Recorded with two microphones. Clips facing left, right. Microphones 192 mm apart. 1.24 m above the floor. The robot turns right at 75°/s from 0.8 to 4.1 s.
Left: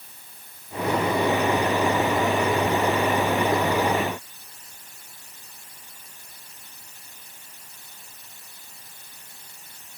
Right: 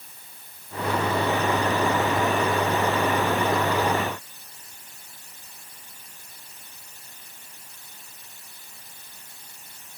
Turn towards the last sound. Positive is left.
No sound to turn to.